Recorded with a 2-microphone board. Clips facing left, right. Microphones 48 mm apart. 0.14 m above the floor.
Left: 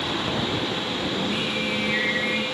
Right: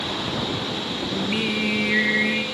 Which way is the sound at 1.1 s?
35° right (ahead or behind).